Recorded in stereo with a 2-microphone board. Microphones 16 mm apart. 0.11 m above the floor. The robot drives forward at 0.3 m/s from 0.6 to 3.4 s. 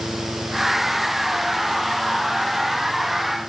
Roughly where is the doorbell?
No doorbell in this recording.